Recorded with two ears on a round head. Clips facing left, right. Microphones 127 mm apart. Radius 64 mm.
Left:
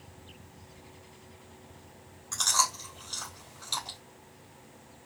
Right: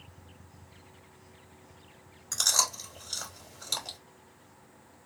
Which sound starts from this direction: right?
Chewing, at 2.3 s.